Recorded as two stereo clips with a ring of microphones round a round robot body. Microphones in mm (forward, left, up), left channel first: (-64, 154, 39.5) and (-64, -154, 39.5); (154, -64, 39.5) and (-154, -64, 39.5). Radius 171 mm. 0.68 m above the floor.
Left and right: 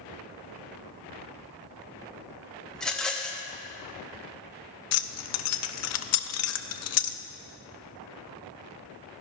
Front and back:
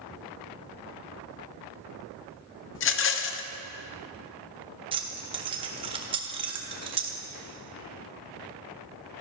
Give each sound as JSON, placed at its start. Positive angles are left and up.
{"t": 2.8, "sound": "a rattle", "azimuth_deg": 5, "distance_m": 0.5}
{"t": 4.9, "sound": "keys jangling", "azimuth_deg": 110, "distance_m": 0.6}